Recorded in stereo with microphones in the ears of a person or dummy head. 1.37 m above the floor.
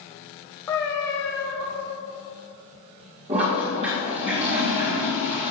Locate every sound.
0.7 s a cat meowing: 20° left (ahead or behind), 1.0 m
3.3 s a toilet flushing: 25° right (ahead or behind), 1.8 m